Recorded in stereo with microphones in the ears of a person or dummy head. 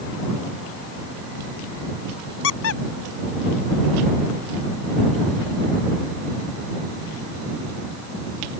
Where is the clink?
No clink in this recording.